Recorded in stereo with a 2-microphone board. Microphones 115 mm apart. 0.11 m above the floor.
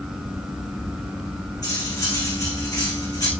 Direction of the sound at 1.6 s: 30° left (ahead or behind).